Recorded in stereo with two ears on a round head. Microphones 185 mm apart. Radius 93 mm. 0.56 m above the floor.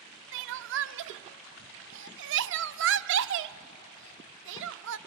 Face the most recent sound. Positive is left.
turn(degrees=-60)  # may be behind; listen again after turning